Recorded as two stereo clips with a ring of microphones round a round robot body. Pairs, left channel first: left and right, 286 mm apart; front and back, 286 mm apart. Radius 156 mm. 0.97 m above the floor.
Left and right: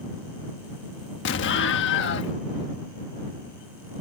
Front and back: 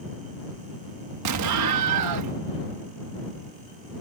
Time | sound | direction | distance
1.2 | an explosion | 145° left | ?